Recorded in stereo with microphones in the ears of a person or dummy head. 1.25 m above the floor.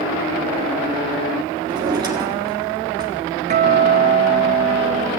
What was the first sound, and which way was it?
A drawer, 25° right (ahead or behind).